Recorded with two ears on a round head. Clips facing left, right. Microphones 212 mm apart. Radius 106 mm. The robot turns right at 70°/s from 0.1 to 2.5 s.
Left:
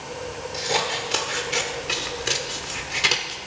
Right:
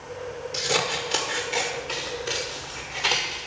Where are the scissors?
20° right (ahead or behind), 1.4 m; by 3.4 s 35° left (ahead or behind), 1.4 m.